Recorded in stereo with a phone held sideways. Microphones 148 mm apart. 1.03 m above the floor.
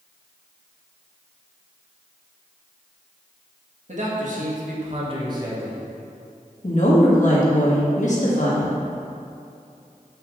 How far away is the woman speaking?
About 1.5 m.